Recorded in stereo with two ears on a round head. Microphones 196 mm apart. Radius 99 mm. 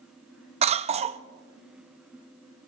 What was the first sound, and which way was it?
A cough, 30° right (ahead or behind).